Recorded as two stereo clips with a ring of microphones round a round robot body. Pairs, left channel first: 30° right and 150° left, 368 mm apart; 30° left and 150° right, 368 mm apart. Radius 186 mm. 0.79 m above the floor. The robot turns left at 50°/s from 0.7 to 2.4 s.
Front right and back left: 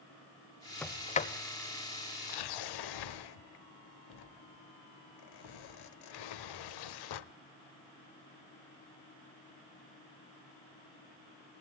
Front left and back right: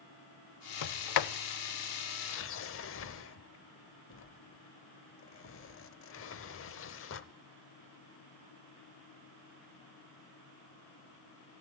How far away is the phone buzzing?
I don't hear a phone buzzing.